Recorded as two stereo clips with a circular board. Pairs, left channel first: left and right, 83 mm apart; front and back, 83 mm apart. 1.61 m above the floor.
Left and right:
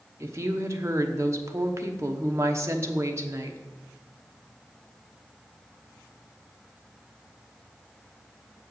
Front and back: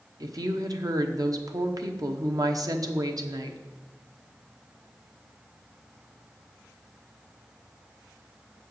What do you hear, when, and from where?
0.2 s a woman speaking: 140° right, 1.0 m